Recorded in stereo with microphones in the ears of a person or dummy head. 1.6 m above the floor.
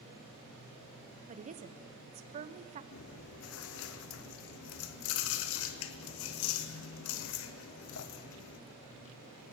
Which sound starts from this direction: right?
A woman speaking, at 1.3 s.